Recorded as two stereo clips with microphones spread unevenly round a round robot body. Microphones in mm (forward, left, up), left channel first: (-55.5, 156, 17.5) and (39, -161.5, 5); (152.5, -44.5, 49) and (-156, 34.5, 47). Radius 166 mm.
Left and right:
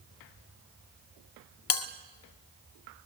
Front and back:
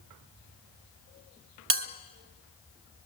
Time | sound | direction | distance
1.7 | a bell | 120° left | 1.4 m